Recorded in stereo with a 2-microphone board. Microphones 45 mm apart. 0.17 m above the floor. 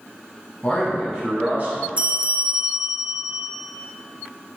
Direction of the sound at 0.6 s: 15° left (ahead or behind).